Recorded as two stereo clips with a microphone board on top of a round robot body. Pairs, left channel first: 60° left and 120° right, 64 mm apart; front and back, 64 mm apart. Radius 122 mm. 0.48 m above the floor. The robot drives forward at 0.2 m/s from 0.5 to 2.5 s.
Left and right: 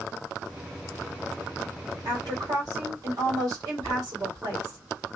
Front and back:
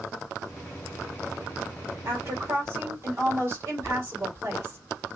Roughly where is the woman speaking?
Behind right.